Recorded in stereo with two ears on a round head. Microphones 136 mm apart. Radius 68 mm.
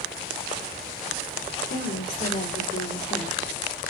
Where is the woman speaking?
50° left (ahead or behind), 2.5 m; by 3.5 s 40° left (ahead or behind), 1.5 m.